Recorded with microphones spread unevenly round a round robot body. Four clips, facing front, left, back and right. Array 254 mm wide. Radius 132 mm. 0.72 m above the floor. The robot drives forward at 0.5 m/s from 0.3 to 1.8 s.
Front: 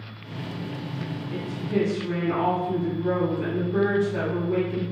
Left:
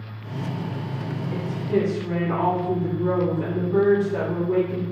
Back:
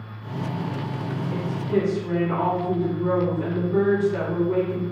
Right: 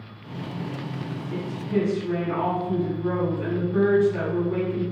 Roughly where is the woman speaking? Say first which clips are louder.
Left 2 dB, back 3 dB; left.